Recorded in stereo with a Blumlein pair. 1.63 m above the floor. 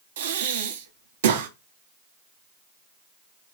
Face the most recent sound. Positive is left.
turn(degrees=-55)